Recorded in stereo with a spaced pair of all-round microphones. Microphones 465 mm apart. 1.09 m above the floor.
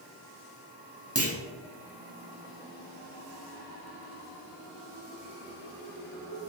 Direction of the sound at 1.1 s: 30° right (ahead or behind).